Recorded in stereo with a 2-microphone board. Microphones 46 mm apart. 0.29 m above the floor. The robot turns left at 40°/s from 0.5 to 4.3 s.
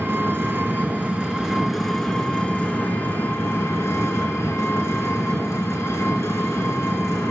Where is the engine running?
130° right, 1.9 m; by 7.3 s 80° left, 1.9 m.